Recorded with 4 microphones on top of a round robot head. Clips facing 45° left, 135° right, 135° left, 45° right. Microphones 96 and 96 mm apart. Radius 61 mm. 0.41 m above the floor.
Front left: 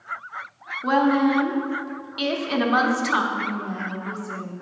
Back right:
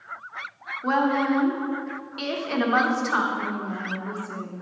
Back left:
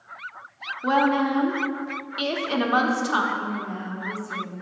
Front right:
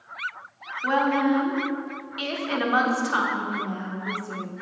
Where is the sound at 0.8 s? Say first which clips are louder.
Front left 3 dB, back left 1 dB; 115° left, 1.0 m.